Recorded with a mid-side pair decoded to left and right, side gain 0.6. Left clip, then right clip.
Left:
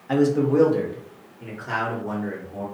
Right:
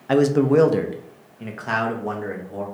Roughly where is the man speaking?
Ahead right.